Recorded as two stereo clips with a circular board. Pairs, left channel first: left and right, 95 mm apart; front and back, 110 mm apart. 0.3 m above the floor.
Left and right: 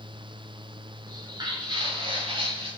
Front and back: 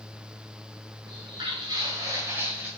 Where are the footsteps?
140° right, 2.5 m; by 2.7 s 105° right, 2.5 m.